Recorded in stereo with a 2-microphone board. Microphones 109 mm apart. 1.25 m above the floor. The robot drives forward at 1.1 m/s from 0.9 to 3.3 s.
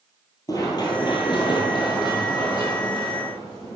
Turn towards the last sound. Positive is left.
turn(degrees=35)  # may be behind; listen again after turning